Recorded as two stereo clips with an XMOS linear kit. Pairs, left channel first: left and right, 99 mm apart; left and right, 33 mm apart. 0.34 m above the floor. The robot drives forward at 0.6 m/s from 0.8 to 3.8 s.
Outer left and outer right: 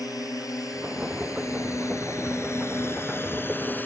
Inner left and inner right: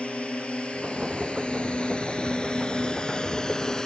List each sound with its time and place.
0.0 s a drone: 40° left (ahead or behind); by 3.9 s 20° left (ahead or behind)